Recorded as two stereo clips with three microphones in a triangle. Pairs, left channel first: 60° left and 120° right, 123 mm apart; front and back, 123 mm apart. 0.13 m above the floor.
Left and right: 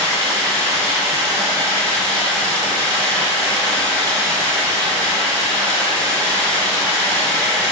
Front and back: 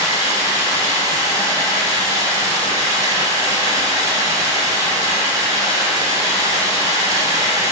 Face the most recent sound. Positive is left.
turn(degrees=135)